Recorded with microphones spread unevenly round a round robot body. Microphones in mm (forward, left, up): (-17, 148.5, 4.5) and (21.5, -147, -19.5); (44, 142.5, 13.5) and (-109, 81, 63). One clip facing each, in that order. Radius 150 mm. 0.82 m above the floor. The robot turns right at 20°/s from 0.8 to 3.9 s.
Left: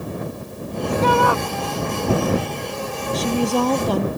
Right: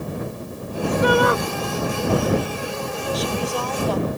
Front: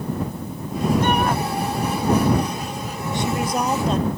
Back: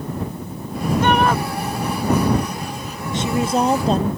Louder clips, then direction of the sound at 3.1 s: Left 8 dB, back 4 dB; 135° left.